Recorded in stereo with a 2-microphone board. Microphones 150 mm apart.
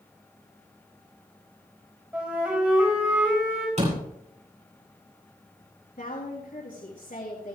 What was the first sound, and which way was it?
A flute, 15° right (ahead or behind).